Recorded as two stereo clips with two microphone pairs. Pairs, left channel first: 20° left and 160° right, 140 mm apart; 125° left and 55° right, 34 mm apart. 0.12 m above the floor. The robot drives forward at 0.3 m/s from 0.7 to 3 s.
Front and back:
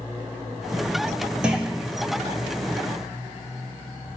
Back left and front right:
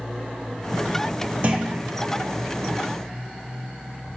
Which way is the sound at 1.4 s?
75° right.